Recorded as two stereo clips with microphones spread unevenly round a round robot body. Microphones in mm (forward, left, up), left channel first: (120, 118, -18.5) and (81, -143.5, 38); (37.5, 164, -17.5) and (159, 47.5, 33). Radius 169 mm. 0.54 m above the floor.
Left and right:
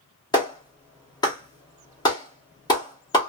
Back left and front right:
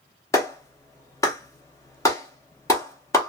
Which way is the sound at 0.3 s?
125° left.